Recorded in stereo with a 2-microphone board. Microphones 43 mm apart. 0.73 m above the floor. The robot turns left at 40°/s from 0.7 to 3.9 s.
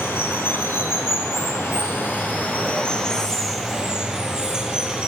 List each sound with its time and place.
0.0 s running water: 110° left, 2 m; by 5.1 s 20° right, 2 m